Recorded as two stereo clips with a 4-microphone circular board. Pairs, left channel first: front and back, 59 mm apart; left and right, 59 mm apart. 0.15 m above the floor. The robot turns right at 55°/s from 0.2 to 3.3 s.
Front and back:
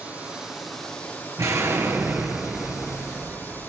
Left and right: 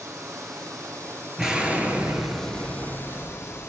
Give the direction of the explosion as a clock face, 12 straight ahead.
6 o'clock.